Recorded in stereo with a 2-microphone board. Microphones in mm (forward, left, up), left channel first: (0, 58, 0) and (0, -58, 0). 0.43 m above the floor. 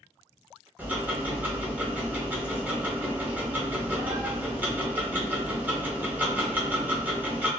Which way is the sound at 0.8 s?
15° right (ahead or behind).